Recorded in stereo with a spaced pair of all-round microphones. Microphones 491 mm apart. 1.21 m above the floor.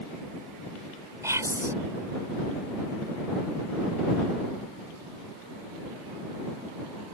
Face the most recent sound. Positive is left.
turn(degrees=-5)  # may be behind; listen again after turning